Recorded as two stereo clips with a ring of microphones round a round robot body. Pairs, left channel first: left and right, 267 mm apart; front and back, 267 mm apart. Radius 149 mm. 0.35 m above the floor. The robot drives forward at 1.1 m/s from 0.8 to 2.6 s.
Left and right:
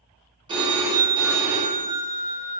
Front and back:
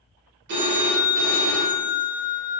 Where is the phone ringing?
155° right, 0.7 m; by 2.6 s 175° right, 2.5 m.